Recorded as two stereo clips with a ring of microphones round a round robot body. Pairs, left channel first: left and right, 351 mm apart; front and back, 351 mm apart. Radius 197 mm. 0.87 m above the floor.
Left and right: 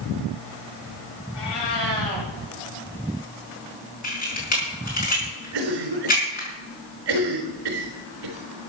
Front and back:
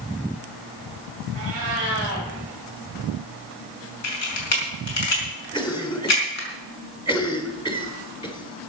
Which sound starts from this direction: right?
A cough, at 5.5 s.